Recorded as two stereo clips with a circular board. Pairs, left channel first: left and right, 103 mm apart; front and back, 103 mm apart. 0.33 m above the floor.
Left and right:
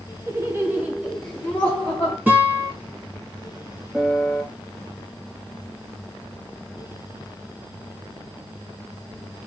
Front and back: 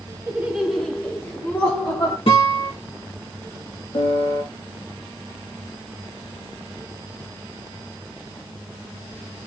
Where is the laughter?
120° right, 1.1 m; by 2.2 s 30° left, 1.4 m.